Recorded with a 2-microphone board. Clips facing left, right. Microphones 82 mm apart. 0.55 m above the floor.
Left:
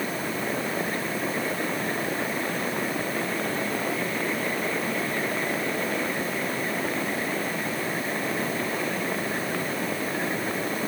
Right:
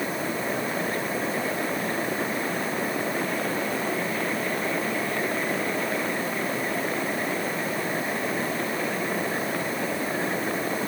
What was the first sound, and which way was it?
Only background noise.